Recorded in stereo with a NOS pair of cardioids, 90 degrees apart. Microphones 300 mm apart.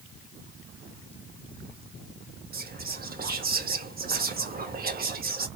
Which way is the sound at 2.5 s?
35° right.